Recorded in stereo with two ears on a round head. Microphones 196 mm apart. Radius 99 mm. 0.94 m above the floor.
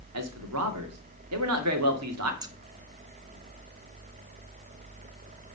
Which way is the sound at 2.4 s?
20° right (ahead or behind).